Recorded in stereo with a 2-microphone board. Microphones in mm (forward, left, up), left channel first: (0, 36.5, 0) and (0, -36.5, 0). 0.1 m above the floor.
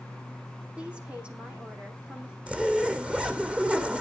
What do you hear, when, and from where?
0.8 s a woman speaking: 15° right (ahead or behind), 4.5 m
2.5 s a zipper: 15° right (ahead or behind), 1.5 m